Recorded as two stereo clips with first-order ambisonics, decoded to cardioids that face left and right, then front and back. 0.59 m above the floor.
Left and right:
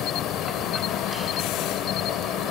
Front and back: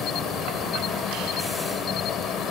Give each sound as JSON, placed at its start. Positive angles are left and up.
{"t": 0.0, "sound": "an insect", "azimuth_deg": 50}